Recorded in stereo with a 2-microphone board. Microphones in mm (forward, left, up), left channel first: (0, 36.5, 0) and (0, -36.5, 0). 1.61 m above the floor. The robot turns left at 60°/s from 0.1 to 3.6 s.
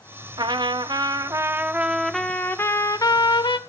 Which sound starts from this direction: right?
A trumpet, at 0.4 s.